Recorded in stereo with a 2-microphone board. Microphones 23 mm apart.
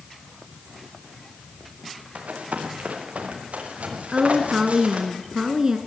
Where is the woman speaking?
25° right (ahead or behind), 1.2 m.